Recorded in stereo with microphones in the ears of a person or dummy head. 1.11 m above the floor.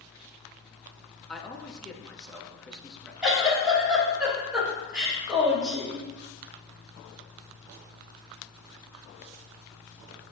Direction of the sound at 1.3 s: 5° left (ahead or behind).